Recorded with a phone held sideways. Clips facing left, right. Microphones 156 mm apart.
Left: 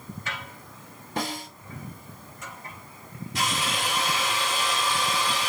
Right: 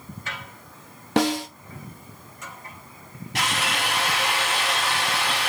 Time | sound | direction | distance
1.2 | a snare drum | 80° right | 1.2 m
3.4 | a drill | 80° right | 3 m